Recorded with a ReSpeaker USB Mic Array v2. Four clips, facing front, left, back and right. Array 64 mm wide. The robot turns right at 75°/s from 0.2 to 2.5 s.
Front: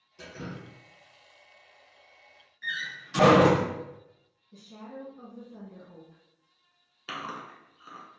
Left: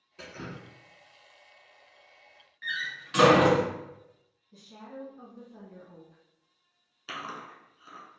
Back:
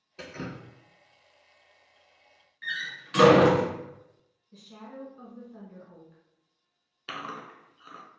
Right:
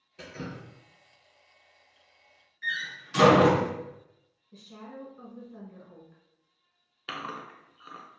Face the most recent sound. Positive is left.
turn(degrees=-105)